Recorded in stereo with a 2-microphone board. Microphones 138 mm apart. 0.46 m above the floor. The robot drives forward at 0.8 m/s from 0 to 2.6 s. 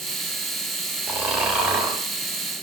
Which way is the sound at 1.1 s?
10° right (ahead or behind).